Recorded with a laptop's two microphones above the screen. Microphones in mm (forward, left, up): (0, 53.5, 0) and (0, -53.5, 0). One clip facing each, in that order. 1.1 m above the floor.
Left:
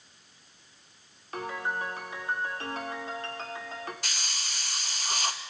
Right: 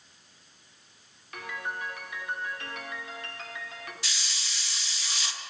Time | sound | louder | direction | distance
1.3 | a piano | left 4 dB | 35° left (ahead or behind) | 3 m
4.0 | a hiss | left 2 dB | 50° left (ahead or behind) | 1.4 m